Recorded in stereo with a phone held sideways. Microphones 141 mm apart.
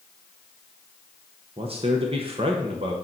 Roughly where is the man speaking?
Right.